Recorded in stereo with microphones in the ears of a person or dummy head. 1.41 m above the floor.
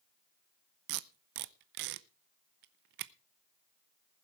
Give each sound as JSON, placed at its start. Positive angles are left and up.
{"t": 0.9, "sound": "tape being pulled", "side_deg": -50, "distance_m": 0.5}